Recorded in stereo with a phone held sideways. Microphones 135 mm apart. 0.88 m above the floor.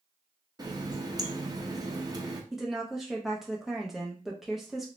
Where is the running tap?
30° right (ahead or behind), 0.6 m.